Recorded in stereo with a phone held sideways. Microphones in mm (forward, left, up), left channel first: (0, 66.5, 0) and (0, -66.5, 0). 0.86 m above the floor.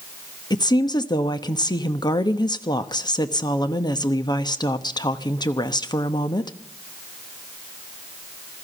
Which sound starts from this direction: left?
A woman speaking, at 0.5 s.